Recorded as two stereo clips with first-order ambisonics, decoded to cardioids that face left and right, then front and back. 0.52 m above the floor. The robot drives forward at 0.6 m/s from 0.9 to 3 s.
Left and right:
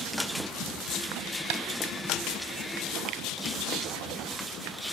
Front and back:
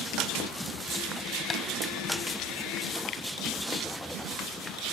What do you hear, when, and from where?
1.5 s tapping: 75° right, 3 m; by 1.6 s 80° right, 3 m
3.1 s a finger snap: 55° right, 3.5 m